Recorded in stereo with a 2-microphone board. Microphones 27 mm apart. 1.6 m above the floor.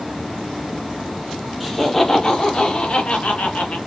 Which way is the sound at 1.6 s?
5° left (ahead or behind).